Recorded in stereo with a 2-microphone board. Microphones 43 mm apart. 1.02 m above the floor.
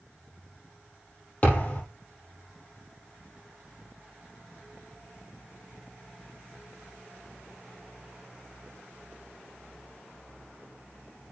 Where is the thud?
30° left (ahead or behind), 4 m.